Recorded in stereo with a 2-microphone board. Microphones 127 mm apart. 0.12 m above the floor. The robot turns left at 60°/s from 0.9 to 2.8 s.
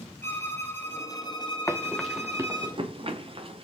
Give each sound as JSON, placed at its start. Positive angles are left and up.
{"t": 0.2, "sound": "a violin", "azimuth_deg": 160, "distance_m": 1.5}
{"t": 1.7, "sound": "running footsteps", "side_deg": 25, "distance_m": 0.9}